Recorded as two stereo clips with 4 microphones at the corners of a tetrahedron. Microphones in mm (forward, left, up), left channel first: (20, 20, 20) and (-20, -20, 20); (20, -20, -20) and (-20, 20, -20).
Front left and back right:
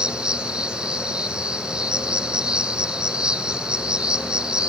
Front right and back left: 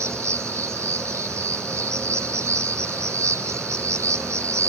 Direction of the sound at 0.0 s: 155° left.